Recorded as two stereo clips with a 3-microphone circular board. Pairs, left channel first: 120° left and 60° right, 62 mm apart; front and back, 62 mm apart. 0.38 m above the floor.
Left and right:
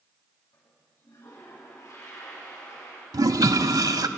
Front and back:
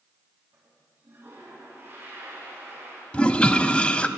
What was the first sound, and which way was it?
A toilet flushing, 135° left.